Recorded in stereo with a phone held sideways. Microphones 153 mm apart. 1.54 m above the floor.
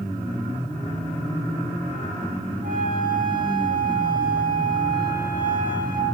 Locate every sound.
2.6 s a flute: 65° right (ahead or behind), 9.5 m